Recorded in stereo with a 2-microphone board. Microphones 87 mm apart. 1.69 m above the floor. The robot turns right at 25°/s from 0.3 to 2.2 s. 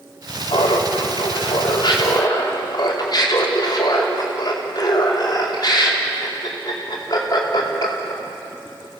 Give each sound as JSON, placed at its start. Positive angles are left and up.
{"t": 0.5, "sound": "laughter", "azimuth_deg": 85, "distance_m": 5.0}